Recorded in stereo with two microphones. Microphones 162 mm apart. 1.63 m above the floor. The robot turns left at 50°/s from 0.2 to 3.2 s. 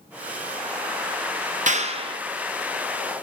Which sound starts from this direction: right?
A clap, at 1.7 s.